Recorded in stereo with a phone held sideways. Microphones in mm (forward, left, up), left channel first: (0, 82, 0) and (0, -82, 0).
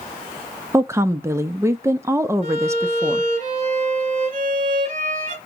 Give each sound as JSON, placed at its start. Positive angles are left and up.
{"t": 0.7, "sound": "a woman speaking", "side_deg": -15, "distance_m": 0.5}
{"t": 2.4, "sound": "a violin", "side_deg": -50, "distance_m": 1.9}